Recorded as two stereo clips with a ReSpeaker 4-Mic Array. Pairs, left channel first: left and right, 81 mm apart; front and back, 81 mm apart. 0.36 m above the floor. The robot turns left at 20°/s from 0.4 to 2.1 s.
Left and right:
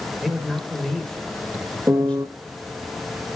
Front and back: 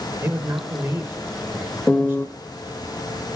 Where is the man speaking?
175° right, 1.1 m; by 2.2 s 150° left, 1.1 m.